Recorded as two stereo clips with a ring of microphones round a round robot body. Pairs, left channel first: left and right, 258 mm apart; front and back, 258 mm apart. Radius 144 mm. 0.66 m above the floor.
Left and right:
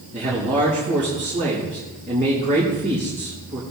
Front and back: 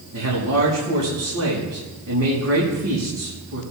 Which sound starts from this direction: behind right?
A man speaking, at 0.1 s.